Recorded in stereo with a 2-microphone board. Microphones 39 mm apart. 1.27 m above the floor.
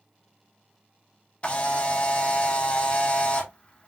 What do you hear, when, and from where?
1.4 s a camera shutter: 30° left (ahead or behind), 0.9 m